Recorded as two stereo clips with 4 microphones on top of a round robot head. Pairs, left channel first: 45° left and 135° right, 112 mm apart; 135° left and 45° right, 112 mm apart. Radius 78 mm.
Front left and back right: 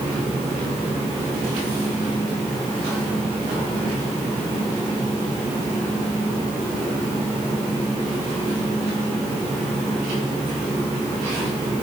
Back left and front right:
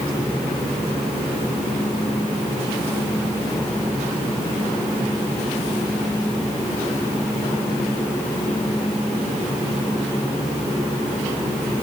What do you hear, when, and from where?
Only background noise.